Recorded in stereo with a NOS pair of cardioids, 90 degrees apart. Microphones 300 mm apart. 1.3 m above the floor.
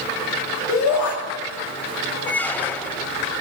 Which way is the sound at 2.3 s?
5° left.